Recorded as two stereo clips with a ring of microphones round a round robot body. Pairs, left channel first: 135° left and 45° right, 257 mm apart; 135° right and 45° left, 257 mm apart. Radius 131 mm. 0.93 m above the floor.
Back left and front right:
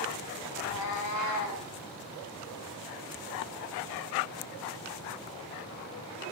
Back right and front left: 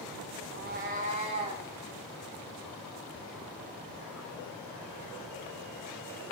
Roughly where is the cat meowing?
Left.